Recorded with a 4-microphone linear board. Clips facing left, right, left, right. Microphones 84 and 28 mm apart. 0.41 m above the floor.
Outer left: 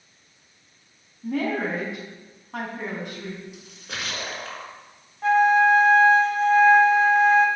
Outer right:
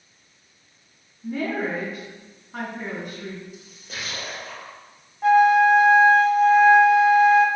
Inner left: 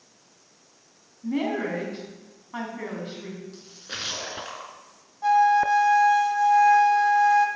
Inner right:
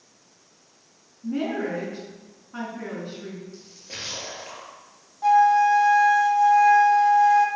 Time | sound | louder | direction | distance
1.2 | a woman speaking | outer left 1 dB, even | 70° left (ahead or behind) | 3.5 m
3.5 | a splash | outer left 2 dB, inner left 2 dB | 75° left (ahead or behind) | 1.9 m
5.2 | a flute | outer right 2 dB, inner right 2 dB | 5° right (ahead or behind) | 1.2 m